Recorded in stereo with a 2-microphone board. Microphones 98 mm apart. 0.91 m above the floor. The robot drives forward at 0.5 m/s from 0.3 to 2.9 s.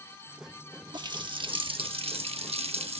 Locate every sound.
0.9 s a running tap: 45° right (ahead or behind), 1.3 m; by 3.0 s 75° right (ahead or behind), 0.9 m